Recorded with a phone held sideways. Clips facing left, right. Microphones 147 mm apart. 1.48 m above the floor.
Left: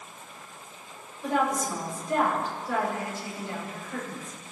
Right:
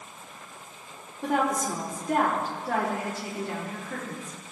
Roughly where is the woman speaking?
Right.